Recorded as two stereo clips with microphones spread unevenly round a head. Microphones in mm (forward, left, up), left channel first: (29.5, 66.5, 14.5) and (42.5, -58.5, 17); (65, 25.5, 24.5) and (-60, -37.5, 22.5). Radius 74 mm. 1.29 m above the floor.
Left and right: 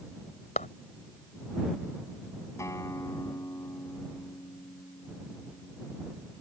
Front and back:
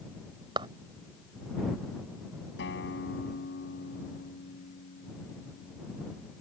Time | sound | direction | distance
0.6 | a clap | 145° left | ?
2.6 | a guitar | 30° left | ?